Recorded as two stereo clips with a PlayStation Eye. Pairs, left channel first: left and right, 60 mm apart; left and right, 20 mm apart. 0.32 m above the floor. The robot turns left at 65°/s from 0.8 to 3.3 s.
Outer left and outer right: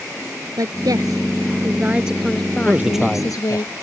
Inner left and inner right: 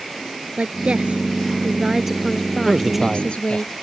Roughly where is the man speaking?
Behind right.